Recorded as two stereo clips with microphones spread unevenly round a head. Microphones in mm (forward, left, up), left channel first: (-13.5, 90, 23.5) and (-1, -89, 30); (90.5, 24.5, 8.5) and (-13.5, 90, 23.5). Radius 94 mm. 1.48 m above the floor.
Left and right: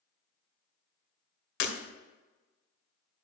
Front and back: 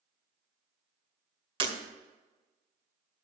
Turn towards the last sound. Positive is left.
turn(degrees=115)